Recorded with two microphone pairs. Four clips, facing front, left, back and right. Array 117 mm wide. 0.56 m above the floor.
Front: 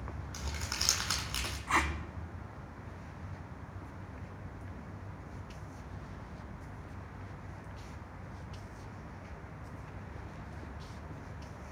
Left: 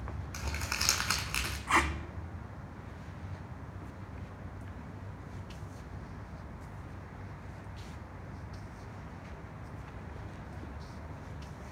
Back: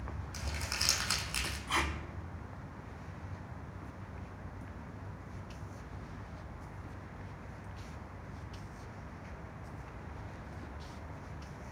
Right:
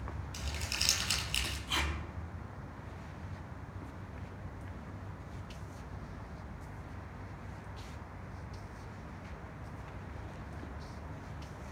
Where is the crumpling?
80° left, 1.6 m.